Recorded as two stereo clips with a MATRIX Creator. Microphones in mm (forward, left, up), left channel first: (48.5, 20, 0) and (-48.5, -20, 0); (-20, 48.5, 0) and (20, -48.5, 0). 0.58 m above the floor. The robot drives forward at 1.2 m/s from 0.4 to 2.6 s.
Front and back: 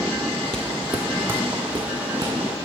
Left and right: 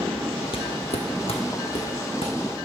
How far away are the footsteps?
About 0.9 m.